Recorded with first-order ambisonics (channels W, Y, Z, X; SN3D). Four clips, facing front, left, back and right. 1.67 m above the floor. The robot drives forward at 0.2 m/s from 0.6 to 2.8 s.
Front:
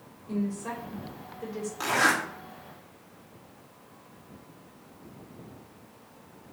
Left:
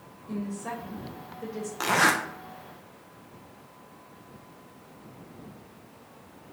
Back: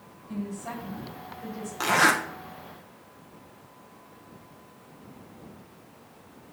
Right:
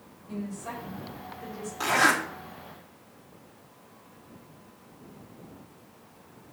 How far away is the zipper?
About 0.6 m.